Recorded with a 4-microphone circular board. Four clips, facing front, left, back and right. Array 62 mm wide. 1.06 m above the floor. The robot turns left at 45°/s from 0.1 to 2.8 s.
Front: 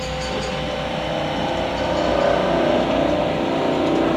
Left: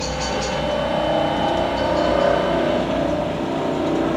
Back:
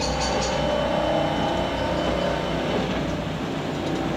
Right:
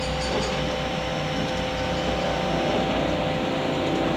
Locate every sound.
0.0 s a helicopter: 150° left; by 4.2 s 30° left